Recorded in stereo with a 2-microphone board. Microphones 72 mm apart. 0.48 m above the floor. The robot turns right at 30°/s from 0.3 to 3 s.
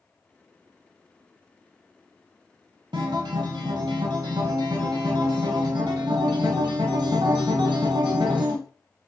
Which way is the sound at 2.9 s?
75° right (ahead or behind).